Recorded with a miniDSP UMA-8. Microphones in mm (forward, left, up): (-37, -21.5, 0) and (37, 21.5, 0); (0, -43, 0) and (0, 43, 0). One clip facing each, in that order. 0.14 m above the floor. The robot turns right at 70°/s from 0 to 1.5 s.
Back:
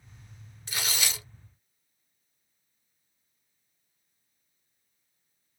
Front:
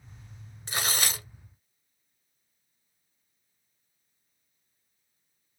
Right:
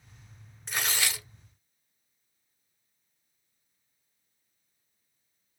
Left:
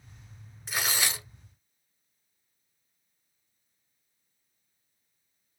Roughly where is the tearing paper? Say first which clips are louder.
Front 3 dB, left 1 dB; ahead.